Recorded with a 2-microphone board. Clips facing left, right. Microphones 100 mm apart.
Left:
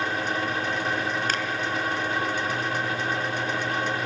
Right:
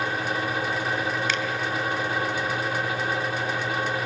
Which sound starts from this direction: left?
A finger snap, at 1.3 s.